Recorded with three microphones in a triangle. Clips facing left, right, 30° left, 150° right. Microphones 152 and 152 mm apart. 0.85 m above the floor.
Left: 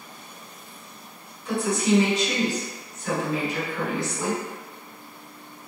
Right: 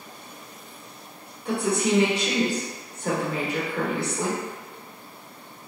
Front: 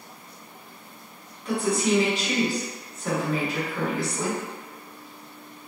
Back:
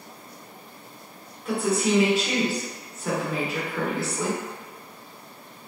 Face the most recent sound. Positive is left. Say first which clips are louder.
# left 1 dB, even
turn(degrees=-65)